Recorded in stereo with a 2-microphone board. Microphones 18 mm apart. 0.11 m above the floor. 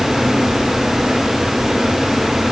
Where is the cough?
I don't hear a cough.